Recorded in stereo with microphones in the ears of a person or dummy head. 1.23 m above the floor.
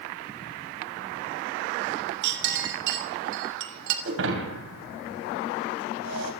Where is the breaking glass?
75° right (ahead or behind), 3.5 m.